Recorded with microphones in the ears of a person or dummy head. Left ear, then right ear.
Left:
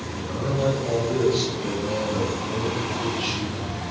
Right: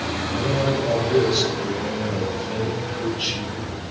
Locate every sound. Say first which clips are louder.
0.1 s a man speaking: right 1 dB; 10° right (ahead or behind), 5.5 m